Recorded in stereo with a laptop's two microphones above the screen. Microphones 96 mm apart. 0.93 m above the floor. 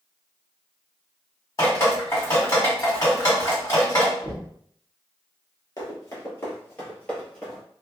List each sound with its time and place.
1.6 s dripping: 35° left (ahead or behind), 1.7 m
4.2 s knocking: 50° left (ahead or behind), 1.2 m
5.8 s running footsteps: 40° left (ahead or behind), 1.2 m; by 7.6 s 5° left (ahead or behind), 1.3 m